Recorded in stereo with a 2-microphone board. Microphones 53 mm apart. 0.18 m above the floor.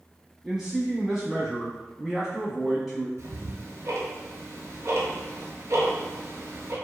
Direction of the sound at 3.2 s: 60° right (ahead or behind).